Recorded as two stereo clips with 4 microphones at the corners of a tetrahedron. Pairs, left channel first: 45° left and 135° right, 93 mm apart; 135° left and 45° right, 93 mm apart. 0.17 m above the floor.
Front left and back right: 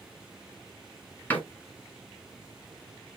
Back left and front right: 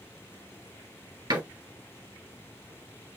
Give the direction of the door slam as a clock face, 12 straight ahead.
1 o'clock.